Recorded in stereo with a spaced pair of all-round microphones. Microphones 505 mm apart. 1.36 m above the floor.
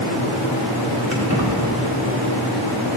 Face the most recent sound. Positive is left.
turn(degrees=-30)  # may be behind; listen again after turning